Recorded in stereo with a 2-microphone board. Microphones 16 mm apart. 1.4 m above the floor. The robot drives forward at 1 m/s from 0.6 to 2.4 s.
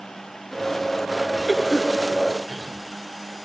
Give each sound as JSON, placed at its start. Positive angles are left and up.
{"t": 1.5, "sound": "a cough", "side_deg": -45, "distance_m": 6.5}